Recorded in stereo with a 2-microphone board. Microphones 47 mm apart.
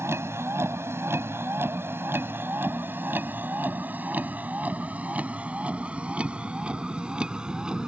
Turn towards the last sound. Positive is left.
turn(degrees=-15)  # may be behind; listen again after turning